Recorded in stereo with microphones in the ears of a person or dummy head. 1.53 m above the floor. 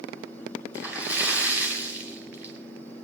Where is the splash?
10° right (ahead or behind), 2.5 m.